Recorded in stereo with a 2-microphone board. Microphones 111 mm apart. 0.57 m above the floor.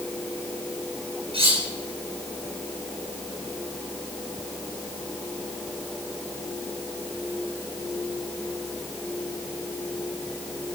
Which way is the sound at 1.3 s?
55° right (ahead or behind).